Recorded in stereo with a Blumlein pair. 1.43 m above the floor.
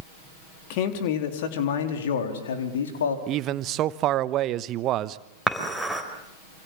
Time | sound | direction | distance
0.7 | a man speaking | 45° left | 3.5 m
3.3 | a man speaking | 35° right | 1.0 m
5.5 | dishes clattering | straight ahead | 4 m